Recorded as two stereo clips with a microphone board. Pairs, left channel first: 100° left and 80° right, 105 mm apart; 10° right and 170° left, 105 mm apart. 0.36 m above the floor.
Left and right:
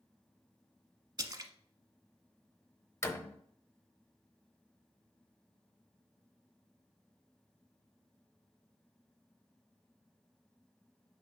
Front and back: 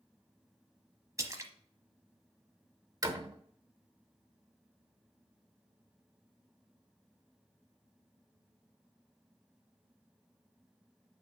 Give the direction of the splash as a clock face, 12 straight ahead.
4 o'clock.